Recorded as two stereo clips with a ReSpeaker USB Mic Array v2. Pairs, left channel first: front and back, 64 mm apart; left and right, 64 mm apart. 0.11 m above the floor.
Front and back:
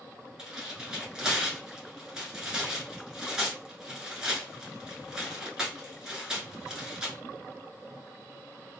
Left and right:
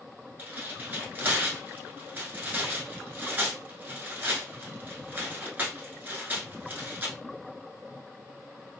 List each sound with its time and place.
0.4 s tearing paper: 110° right, 1.0 m